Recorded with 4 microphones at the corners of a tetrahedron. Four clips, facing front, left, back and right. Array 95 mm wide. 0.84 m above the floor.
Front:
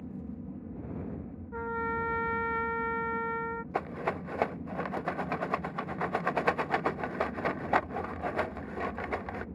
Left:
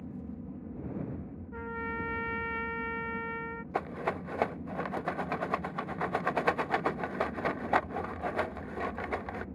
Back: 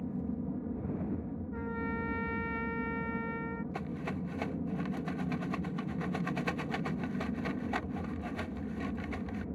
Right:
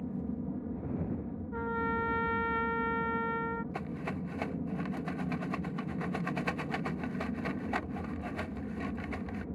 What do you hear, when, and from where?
0.0 s an aircraft: 135° right
1.5 s a trumpet: 25° right
3.7 s a rattle: 40° left